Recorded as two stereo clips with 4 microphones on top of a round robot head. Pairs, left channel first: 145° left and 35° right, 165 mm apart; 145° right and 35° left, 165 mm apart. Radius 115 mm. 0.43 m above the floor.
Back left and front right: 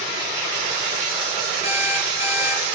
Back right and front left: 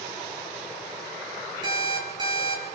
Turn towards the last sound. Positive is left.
turn(degrees=95)